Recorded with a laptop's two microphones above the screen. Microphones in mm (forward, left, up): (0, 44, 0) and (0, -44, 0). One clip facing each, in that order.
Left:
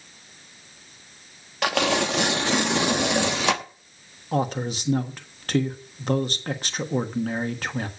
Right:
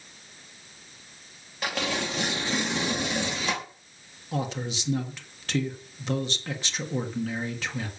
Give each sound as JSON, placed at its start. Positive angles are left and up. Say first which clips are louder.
{"t": 1.6, "sound": "tearing paper", "louder": "left 7 dB", "side_deg": 75, "distance_m": 1.1}
{"t": 4.3, "sound": "a man speaking", "louder": "left 6 dB", "side_deg": 45, "distance_m": 1.4}